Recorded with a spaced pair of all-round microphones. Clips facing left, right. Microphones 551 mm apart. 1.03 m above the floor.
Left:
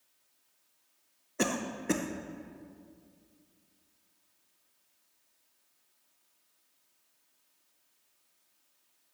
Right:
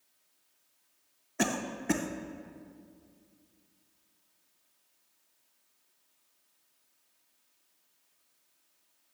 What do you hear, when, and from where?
1.4 s a cough: 15° right (ahead or behind), 0.7 m